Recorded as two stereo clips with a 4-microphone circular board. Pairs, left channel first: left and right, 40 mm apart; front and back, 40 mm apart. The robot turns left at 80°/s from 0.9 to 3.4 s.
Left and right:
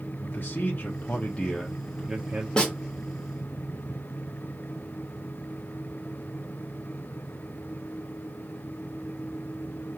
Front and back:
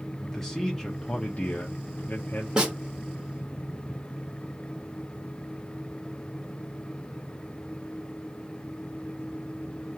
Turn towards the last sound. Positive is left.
turn(degrees=70)